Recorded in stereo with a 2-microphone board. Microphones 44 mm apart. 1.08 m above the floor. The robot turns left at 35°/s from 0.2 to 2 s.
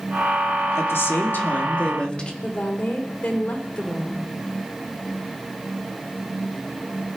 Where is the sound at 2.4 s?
45° left (ahead or behind), 3 m.